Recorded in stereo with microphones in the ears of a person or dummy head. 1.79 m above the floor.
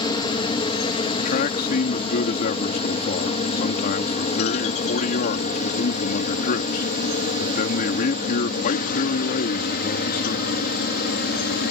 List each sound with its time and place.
0.0 s a helicopter: 20° left (ahead or behind); by 11.7 s 50° left (ahead or behind)
1.2 s a man speaking: 50° left (ahead or behind)